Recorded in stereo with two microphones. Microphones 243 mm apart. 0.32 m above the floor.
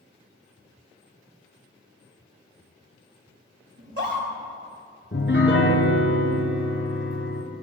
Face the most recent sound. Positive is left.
turn(degrees=50)  # may be behind; listen again after turning